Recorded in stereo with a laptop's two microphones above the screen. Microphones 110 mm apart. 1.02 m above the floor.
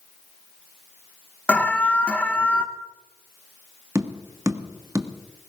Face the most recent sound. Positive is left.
turn(degrees=-25)  # may be behind; listen again after turning